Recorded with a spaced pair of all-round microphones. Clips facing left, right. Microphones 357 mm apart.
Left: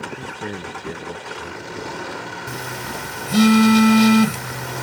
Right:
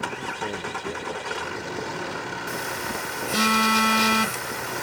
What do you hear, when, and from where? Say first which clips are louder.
0.1 s a man speaking: left 2 dB; 20° left (ahead or behind); by 2.1 s 25° left (ahead or behind)
2.5 s a phone buzzing: even; 50° left (ahead or behind)